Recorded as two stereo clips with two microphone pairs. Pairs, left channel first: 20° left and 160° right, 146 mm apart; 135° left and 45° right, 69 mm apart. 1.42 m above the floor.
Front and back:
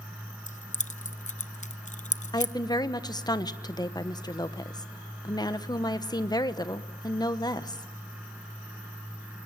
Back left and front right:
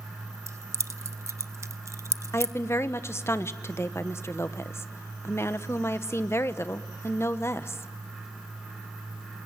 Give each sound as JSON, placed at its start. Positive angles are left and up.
{"t": 0.5, "sound": "keys jangling", "azimuth_deg": -5, "distance_m": 0.8}
{"t": 2.3, "sound": "a woman speaking", "azimuth_deg": 85, "distance_m": 1.1}